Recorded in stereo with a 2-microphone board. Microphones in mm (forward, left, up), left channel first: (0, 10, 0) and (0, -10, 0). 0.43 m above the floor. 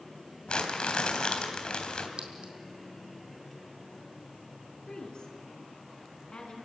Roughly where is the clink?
Right.